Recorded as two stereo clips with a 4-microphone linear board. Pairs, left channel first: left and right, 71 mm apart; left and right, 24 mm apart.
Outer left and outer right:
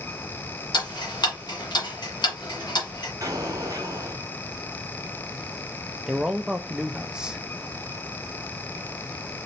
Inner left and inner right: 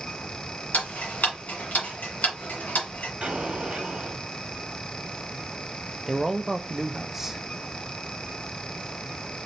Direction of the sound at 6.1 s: 10° right (ahead or behind).